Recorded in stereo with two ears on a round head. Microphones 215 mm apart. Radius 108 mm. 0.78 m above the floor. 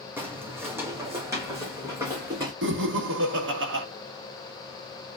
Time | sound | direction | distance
0.2 | footsteps | 10° right (ahead or behind) | 1.4 m
2.6 | laughter | 50° right (ahead or behind) | 1.3 m